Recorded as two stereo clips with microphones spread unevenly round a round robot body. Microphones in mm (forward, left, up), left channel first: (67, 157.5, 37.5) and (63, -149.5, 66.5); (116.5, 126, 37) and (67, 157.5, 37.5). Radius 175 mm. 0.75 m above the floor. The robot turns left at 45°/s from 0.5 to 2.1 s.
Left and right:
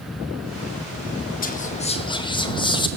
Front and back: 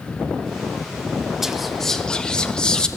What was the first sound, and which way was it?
Whispering, 65° left.